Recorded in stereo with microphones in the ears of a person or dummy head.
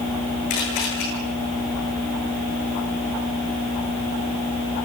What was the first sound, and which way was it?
A camera shutter, 55° left (ahead or behind).